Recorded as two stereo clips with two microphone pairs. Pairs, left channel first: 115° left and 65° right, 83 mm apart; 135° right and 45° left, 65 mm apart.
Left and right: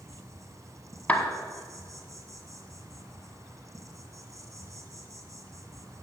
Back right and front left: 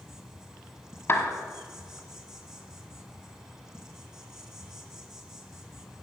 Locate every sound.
0.0 s an insect: 30° right, 1.8 m
1.1 s a clap: straight behind, 1.2 m